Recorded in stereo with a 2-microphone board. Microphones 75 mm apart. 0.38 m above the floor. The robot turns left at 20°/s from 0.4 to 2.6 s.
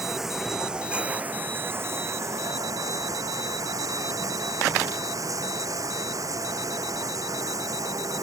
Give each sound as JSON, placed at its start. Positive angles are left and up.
{"t": 0.0, "sound": "running water", "azimuth_deg": -5}